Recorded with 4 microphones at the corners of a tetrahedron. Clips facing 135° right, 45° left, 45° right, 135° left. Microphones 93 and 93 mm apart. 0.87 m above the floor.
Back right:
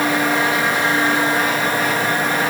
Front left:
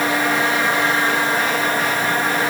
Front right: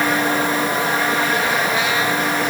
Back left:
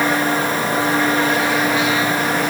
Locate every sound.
Only background noise.